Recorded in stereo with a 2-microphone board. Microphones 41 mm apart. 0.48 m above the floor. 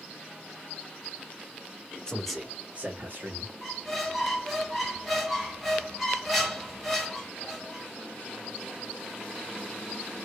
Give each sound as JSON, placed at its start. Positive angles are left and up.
{"t": 2.1, "sound": "a man speaking", "side_deg": 15, "distance_m": 0.9}
{"t": 3.6, "sound": "a squeak", "side_deg": 0, "distance_m": 1.8}